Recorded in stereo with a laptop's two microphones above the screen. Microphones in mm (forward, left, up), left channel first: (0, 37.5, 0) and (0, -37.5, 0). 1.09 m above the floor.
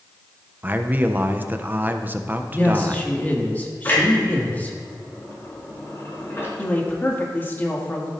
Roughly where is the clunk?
Left.